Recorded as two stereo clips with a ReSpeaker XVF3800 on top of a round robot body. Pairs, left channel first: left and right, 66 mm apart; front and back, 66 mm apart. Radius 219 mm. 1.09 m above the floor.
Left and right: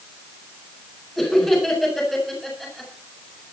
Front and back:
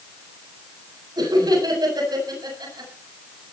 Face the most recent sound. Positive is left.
turn(degrees=175)